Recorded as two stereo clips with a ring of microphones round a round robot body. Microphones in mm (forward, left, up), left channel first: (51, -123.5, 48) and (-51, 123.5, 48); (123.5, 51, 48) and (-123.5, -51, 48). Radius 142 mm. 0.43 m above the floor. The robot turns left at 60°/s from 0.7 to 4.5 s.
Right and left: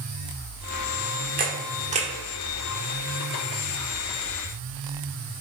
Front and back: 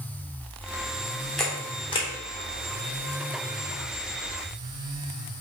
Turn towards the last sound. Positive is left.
turn(degrees=-75)